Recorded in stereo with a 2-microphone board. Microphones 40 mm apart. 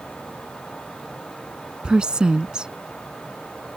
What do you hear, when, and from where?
1.8 s a woman speaking: 20° right (ahead or behind)